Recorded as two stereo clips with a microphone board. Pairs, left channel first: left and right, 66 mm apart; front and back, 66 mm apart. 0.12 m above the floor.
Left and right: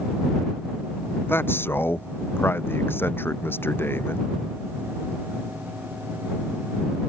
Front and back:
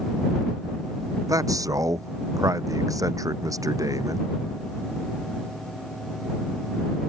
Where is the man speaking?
150° left.